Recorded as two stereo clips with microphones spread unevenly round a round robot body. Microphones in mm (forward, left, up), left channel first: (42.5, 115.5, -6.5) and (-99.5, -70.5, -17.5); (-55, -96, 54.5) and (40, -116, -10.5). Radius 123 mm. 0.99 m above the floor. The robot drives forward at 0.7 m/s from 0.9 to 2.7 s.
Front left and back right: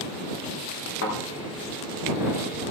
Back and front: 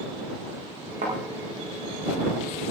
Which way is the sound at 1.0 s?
15° left.